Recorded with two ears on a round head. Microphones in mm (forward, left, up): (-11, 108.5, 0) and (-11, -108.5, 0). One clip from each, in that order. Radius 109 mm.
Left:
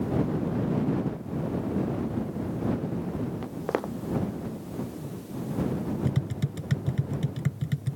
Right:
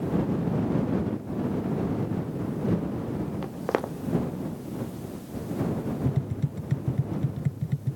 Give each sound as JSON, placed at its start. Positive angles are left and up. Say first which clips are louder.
{"t": 3.4, "sound": "footsteps", "louder": "right 3 dB", "side_deg": -10}
{"t": 6.0, "sound": "tapping", "louder": "right 1 dB", "side_deg": 60}